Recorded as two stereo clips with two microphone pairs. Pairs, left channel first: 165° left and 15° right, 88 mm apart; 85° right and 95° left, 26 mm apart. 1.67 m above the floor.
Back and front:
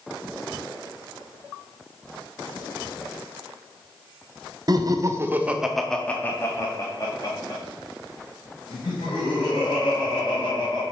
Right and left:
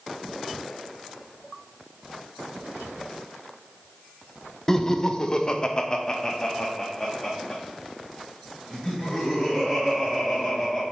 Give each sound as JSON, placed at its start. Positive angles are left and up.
{"t": 4.7, "sound": "laughter", "azimuth_deg": -20, "distance_m": 0.8}